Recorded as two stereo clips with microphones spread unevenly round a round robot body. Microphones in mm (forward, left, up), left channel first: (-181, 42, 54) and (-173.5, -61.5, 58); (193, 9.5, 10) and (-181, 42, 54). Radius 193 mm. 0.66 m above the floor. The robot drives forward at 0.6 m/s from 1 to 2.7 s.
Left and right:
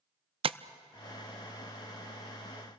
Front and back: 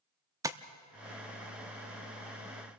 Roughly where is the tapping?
Right.